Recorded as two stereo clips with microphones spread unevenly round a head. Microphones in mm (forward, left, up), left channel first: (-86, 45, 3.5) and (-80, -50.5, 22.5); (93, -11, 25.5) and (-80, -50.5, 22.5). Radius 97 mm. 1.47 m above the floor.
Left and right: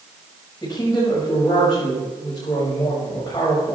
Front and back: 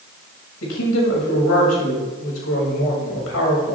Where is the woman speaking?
20° left, 7 m.